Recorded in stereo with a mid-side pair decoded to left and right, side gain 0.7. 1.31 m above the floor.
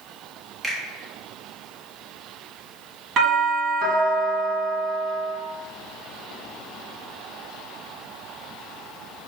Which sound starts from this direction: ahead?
A finger snap, at 0.6 s.